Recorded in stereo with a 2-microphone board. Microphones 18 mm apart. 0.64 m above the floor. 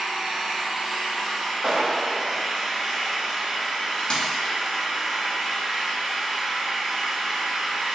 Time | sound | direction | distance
0.0 | an engine running | 75° right (ahead or behind) | 1.5 m
1.6 | a clap | 55° right (ahead or behind) | 1.5 m
4.1 | a dropped coin | 50° left (ahead or behind) | 0.7 m